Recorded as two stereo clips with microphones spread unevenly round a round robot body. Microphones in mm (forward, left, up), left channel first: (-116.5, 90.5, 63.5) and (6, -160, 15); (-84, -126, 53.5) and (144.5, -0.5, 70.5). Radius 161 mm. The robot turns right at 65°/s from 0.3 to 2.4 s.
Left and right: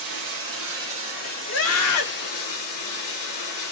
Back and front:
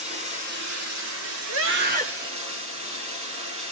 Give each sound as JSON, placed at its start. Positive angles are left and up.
{"t": 0.0, "sound": "running water", "azimuth_deg": -35, "distance_m": 5.5}
{"t": 1.5, "sound": "a scream", "azimuth_deg": 60, "distance_m": 1.8}